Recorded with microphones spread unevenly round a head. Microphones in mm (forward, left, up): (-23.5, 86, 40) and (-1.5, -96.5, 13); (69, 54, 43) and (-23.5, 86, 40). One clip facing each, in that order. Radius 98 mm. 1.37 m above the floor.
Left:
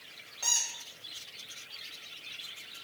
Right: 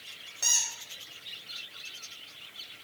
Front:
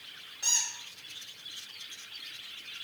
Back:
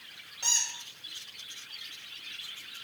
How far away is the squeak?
About 0.8 m.